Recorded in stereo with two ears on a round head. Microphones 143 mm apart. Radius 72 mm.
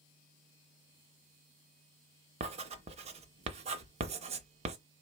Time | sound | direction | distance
2.4 | writing | 40° right (ahead or behind) | 0.6 m